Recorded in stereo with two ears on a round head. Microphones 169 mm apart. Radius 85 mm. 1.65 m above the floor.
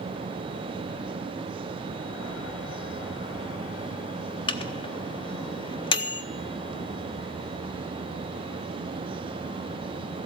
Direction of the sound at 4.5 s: 25° left (ahead or behind).